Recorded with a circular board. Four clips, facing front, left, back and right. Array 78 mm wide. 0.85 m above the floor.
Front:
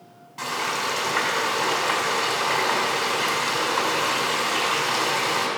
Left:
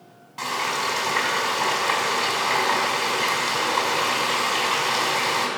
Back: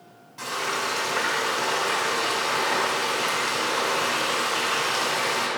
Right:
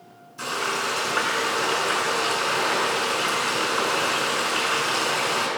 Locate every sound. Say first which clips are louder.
0.4 s frying: left 1 dB, front 1 dB; 70° left, 6 m